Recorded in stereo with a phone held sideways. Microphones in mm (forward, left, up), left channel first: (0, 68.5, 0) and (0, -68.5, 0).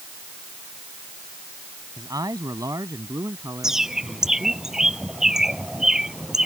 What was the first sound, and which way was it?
A man speaking, 25° right (ahead or behind).